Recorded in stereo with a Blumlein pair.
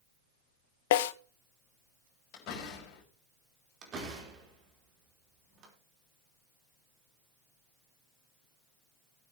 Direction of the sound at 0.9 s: 55° left.